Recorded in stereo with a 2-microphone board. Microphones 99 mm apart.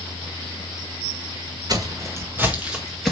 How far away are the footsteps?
About 2 m.